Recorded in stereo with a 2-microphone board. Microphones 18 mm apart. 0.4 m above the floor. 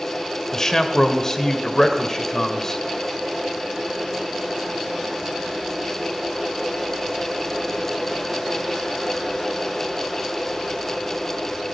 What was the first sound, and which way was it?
A man speaking, 30° left (ahead or behind).